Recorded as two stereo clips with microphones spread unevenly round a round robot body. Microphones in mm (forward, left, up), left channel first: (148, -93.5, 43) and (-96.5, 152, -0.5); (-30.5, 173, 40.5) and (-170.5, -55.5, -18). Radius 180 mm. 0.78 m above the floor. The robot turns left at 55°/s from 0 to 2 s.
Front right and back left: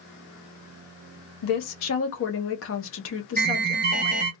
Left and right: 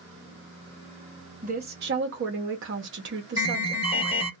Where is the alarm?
135° left, 0.9 m.